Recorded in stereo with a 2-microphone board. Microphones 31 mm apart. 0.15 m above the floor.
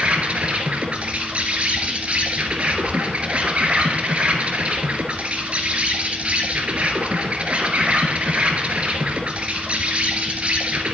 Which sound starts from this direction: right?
An insect, at 0.0 s.